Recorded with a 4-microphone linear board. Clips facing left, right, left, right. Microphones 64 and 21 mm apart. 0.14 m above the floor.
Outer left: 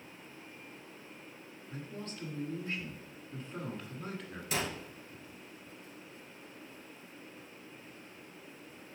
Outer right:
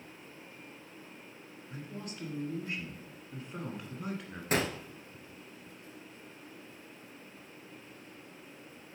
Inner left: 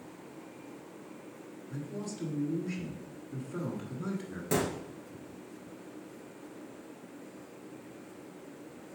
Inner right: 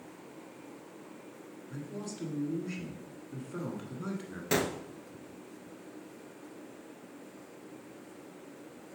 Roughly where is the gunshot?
Right.